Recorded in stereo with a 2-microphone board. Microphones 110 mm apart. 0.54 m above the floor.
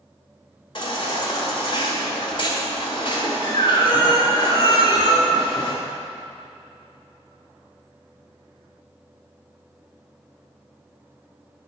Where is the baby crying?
50° left (ahead or behind), 1.6 m.